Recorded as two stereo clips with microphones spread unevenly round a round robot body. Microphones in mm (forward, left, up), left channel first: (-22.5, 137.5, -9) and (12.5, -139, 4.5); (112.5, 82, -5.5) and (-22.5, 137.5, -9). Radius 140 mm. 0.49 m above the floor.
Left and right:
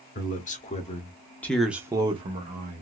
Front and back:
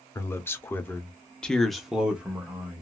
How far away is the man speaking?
About 1.1 m.